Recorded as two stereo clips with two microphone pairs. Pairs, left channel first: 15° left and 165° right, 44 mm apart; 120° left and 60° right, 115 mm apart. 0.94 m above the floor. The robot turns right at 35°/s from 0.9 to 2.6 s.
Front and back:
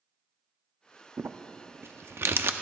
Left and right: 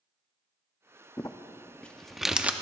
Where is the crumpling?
170° left, 0.5 m; by 2.5 s 140° right, 0.5 m.